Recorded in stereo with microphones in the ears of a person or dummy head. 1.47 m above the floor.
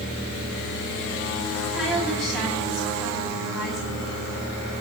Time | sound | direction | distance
1.7 | a woman speaking | centre (ahead or behind) | 9 m